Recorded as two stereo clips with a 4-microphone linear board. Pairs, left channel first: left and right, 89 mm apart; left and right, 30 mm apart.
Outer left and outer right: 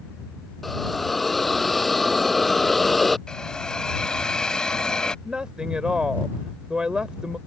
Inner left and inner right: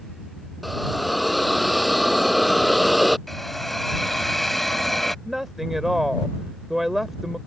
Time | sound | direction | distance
0.6 | a hiss | centre (ahead or behind) | ?
3.3 | a hiss | 10° left (ahead or behind) | ?
5.2 | a woman speaking | 10° right (ahead or behind) | ?